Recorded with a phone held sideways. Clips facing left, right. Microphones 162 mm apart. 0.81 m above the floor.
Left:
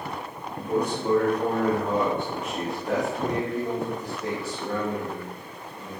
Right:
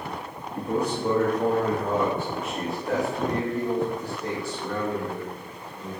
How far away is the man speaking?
About 1.2 m.